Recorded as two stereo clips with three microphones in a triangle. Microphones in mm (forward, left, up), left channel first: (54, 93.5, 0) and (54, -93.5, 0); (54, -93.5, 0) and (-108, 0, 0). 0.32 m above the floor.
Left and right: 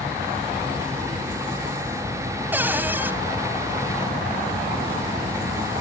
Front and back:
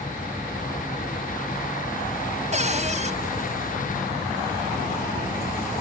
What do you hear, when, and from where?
2.5 s a cupboard door: 165° right, 2 m